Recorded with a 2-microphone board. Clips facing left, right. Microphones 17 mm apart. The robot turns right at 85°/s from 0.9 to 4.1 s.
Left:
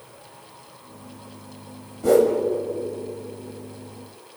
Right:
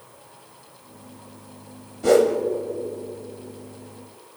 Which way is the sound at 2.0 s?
30° right (ahead or behind).